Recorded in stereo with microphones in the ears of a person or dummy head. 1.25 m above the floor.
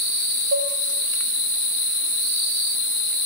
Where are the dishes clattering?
70° right (ahead or behind), 1.1 m.